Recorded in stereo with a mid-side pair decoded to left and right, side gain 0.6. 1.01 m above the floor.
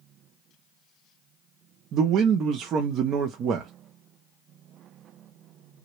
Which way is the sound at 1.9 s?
55° right.